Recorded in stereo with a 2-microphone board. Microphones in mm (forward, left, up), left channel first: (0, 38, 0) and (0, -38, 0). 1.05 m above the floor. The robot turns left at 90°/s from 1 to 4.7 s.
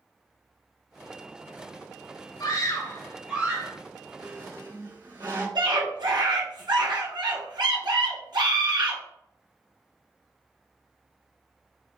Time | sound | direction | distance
2.4 | a scream | 80° left | 2.5 m
4.2 | a squeak | 65° right | 2.5 m
5.5 | a scream | 70° right (ahead or behind) | 1.4 m